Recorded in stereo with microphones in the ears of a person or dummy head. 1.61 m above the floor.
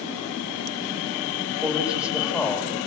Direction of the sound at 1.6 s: 5° right (ahead or behind).